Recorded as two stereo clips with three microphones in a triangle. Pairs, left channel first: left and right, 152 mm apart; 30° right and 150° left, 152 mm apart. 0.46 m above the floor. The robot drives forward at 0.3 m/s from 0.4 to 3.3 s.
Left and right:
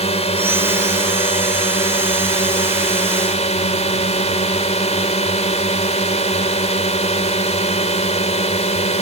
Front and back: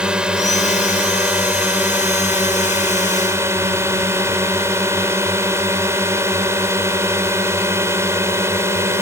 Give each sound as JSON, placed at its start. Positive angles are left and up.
{"t": 0.0, "sound": "a drone", "azimuth_deg": 70}